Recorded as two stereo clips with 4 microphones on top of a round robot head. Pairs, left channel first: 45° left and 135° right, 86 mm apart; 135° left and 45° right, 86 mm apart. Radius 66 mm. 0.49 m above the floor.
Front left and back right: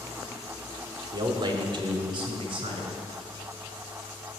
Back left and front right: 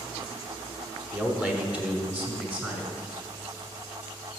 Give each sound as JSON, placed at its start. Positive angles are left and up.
{"t": 1.1, "sound": "a man speaking", "azimuth_deg": -115, "distance_m": 1.1}